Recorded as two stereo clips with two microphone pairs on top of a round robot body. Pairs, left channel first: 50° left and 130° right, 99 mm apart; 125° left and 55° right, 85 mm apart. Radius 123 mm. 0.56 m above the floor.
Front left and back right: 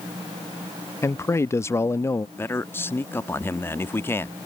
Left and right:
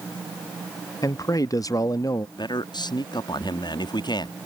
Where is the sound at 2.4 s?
105° left.